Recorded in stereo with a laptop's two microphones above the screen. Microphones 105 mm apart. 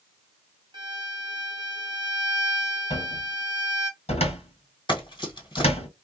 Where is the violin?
50° right (ahead or behind), 1.0 m.